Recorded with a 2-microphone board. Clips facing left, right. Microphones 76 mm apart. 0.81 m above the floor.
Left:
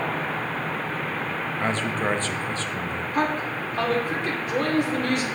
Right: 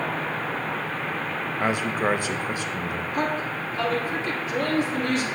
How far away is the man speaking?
About 0.6 m.